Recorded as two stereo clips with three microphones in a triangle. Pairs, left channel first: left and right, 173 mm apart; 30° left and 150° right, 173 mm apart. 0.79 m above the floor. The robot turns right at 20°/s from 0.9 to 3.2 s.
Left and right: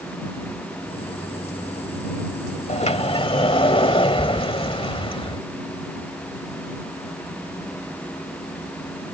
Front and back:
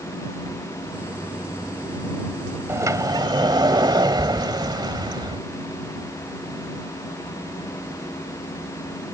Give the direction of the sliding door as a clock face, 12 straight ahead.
7 o'clock.